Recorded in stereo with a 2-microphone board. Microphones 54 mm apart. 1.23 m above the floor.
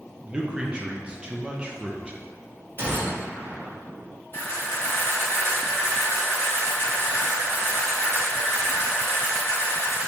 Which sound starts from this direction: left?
A camera shutter, at 4.3 s.